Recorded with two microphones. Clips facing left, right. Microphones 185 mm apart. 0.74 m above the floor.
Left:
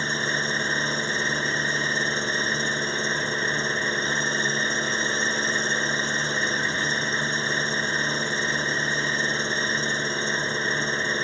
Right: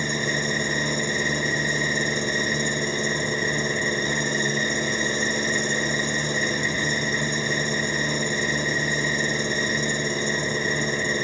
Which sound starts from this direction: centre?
An engine running, at 0.0 s.